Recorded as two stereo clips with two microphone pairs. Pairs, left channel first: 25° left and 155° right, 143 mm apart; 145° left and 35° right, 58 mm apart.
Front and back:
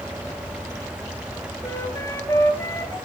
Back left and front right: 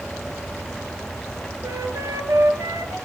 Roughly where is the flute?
Ahead right.